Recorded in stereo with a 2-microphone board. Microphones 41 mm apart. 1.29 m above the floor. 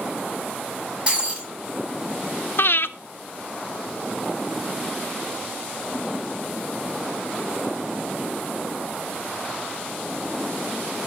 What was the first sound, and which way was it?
Breaking glass, 35° right (ahead or behind).